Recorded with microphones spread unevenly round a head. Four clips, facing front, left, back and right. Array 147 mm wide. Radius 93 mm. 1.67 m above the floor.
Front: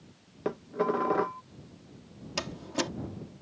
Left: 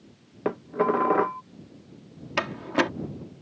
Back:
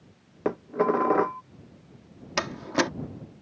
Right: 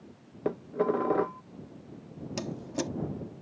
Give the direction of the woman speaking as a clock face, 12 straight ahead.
I don't hear a woman speaking.